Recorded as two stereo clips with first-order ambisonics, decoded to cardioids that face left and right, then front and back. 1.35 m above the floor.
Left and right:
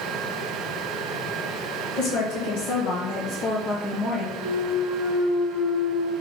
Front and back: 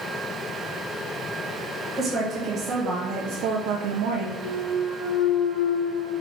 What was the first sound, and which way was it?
A woman speaking, 100° left.